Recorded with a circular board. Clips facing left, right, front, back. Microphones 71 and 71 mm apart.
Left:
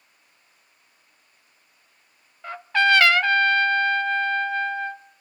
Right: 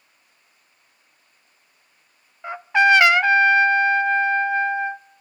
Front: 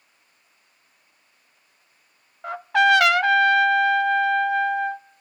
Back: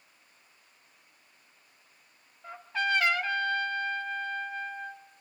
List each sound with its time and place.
2.4 s a trumpet: 15° right, 0.5 m